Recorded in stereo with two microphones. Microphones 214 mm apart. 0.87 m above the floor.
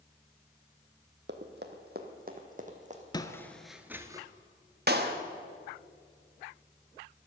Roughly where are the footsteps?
Centre.